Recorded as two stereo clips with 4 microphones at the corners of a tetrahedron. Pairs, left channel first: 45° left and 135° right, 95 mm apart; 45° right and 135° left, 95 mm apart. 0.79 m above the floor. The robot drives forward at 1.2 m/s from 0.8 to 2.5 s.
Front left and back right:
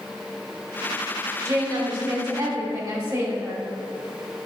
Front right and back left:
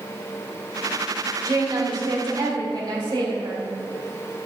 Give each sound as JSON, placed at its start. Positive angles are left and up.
{"t": 1.4, "sound": "a woman speaking", "azimuth_deg": 175, "distance_m": 1.2}